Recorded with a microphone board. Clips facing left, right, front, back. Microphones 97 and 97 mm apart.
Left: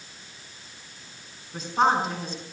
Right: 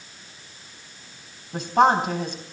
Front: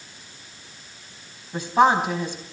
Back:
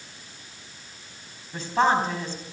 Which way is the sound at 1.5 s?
75° right.